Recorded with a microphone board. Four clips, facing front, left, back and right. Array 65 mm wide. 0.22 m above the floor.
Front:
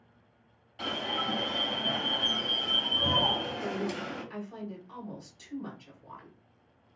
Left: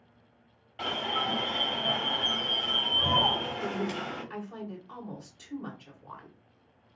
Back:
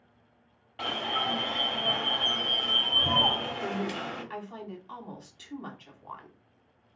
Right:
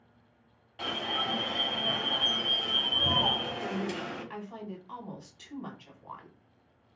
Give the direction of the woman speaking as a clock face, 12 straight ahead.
5 o'clock.